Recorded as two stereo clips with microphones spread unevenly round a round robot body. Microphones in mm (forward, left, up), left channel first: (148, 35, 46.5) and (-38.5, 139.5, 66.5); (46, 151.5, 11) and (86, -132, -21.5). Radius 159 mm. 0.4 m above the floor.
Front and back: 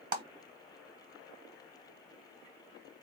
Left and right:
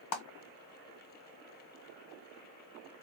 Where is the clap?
105° left, 1.5 m.